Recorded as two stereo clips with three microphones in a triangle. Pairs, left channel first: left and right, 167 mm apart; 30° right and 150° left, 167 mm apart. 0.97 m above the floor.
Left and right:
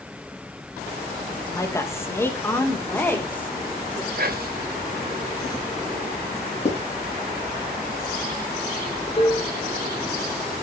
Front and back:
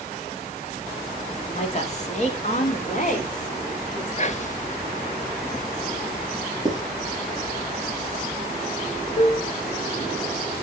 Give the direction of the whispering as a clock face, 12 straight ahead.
2 o'clock.